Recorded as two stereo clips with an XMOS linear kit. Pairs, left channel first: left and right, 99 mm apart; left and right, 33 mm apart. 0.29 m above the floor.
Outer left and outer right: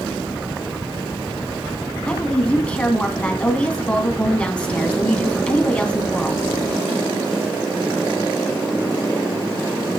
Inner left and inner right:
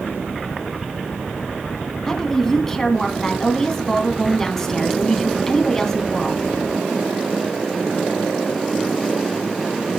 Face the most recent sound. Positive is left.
turn(degrees=15)  # may be behind; listen again after turning